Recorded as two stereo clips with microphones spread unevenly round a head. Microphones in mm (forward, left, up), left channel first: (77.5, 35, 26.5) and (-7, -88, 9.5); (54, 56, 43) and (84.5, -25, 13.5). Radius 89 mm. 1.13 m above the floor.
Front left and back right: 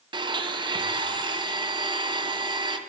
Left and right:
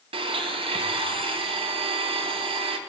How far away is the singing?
I don't hear singing.